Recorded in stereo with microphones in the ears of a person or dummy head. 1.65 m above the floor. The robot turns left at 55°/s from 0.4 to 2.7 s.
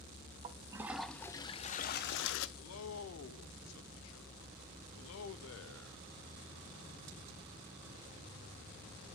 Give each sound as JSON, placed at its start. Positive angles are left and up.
{"t": 0.4, "sound": "a toilet flushing", "azimuth_deg": -145, "distance_m": 0.5}
{"t": 2.6, "sound": "a man speaking", "side_deg": 90, "distance_m": 0.7}